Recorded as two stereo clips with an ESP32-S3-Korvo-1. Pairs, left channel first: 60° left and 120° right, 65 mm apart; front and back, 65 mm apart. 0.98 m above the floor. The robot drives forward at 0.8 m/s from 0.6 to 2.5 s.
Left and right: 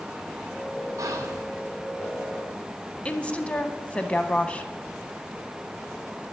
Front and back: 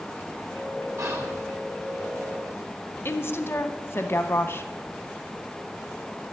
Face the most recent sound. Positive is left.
turn(degrees=5)